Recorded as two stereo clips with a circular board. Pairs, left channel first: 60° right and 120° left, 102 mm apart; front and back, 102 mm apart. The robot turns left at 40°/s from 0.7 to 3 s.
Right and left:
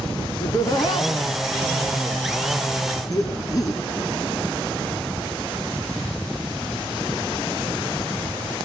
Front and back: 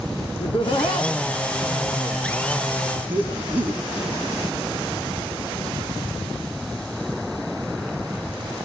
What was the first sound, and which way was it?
Laughter, 20° right.